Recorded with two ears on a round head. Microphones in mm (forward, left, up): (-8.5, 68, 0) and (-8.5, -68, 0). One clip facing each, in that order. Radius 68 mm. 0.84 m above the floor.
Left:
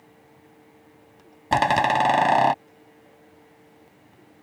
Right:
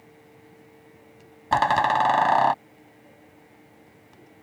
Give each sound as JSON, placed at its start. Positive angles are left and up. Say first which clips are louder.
{"t": 1.5, "sound": "a door slam", "louder": "left 1 dB", "side_deg": 20}